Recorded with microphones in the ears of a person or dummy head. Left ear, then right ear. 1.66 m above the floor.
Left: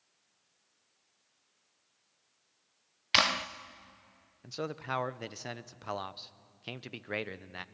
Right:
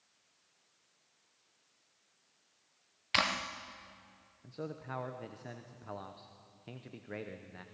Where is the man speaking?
50° left (ahead or behind), 0.7 m.